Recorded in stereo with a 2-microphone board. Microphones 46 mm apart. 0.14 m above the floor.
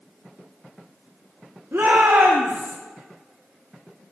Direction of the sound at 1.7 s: 60° right (ahead or behind).